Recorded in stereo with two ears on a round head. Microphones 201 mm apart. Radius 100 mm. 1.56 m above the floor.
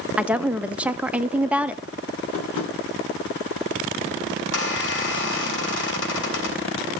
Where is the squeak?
55° left (ahead or behind), 5.5 m.